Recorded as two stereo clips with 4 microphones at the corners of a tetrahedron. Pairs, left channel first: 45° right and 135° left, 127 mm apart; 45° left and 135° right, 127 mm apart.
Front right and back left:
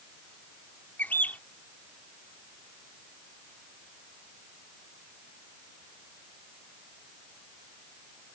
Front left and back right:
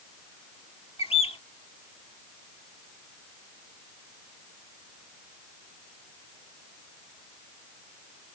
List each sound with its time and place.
1.0 s a bird: 30° left